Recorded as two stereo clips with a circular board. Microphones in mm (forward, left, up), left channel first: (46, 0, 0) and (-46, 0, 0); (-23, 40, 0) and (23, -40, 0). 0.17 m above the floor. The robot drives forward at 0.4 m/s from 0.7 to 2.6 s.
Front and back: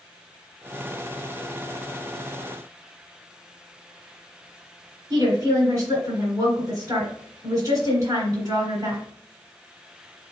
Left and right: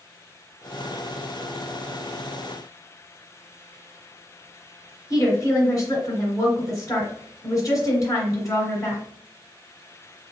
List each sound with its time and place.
5.1 s a woman speaking: 150° left, 1.9 m